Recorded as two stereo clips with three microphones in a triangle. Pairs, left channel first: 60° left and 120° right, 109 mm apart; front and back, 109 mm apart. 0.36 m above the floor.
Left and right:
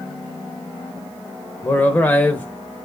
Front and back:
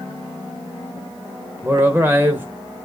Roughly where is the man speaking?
Behind left.